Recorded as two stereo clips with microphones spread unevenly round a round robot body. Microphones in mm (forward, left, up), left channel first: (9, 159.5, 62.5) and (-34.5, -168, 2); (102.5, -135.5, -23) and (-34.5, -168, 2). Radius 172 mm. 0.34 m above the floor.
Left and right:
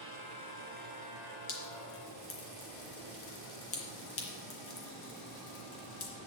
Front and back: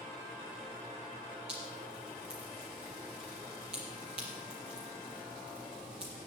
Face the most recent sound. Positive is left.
turn(degrees=135)